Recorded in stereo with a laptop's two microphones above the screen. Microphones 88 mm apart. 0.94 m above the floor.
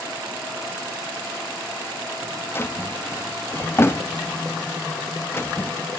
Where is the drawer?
30° left (ahead or behind), 0.5 m.